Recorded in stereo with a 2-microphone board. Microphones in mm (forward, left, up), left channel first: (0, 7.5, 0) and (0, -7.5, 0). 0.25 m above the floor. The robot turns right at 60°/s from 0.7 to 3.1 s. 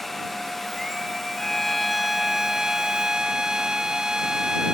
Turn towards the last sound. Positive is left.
turn(degrees=-110)